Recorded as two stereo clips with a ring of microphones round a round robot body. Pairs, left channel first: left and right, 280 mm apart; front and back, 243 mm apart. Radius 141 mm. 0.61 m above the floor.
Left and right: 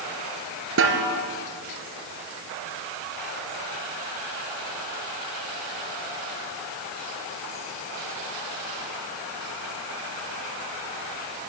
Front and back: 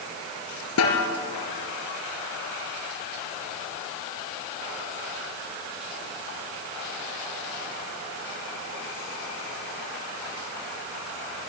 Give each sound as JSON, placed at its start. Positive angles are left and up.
{"t": 0.8, "sound": "a snare drum", "azimuth_deg": -40, "distance_m": 3.5}